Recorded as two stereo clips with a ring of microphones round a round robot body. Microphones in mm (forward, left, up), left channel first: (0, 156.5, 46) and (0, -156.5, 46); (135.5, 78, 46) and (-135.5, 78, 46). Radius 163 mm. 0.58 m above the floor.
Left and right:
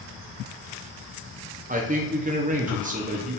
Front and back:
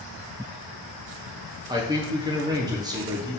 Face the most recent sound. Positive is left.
turn(degrees=-120)